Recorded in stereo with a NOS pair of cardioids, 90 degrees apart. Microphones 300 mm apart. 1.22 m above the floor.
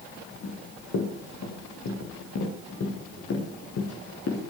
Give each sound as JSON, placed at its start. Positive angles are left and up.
{"t": 0.4, "sound": "running footsteps", "azimuth_deg": 55, "distance_m": 9.5}